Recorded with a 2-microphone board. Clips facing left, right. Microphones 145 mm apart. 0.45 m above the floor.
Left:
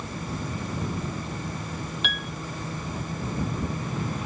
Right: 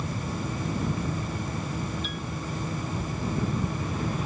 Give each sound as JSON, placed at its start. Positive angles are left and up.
{"t": 2.0, "sound": "a piano", "side_deg": 75}